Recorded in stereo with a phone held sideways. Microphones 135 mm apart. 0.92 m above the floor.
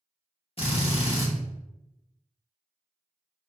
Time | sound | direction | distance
0.6 | a drill | 45° left (ahead or behind) | 0.8 m